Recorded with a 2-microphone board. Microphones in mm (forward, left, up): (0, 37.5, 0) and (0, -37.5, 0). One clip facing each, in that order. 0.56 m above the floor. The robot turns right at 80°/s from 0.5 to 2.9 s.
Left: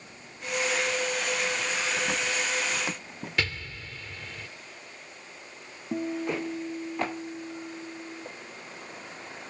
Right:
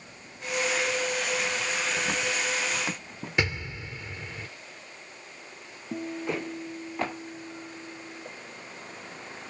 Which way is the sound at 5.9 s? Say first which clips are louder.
Left 2 dB; 20° left (ahead or behind).